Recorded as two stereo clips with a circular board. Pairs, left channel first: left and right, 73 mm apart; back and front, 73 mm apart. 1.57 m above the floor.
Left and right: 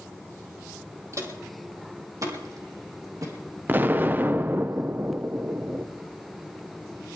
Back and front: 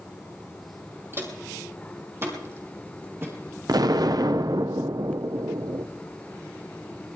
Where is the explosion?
30° right, 0.6 m.